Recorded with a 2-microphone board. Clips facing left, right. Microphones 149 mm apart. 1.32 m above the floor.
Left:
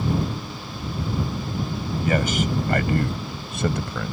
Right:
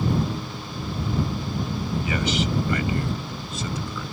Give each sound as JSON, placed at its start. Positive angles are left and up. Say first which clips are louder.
{"t": 2.0, "sound": "a man speaking", "louder": "left 5 dB", "side_deg": 50}